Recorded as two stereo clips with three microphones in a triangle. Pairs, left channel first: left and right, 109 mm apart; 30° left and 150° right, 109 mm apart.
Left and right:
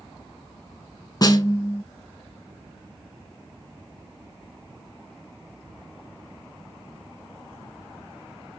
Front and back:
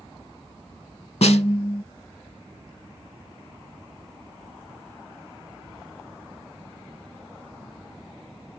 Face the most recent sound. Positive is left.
turn(degrees=40)